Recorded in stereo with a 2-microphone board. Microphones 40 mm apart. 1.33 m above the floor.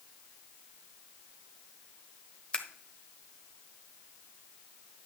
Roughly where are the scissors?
Left.